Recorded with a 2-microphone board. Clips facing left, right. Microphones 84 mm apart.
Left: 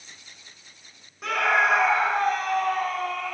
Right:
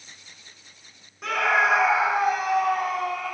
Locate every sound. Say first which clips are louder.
1.2 s a scream: even; centre (ahead or behind), 1.1 m; by 3.4 s 10° right (ahead or behind), 1.7 m